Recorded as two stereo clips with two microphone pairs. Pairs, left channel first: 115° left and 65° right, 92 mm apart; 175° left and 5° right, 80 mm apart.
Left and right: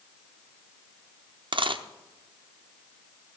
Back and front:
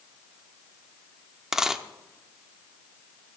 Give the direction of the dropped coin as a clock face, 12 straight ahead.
3 o'clock.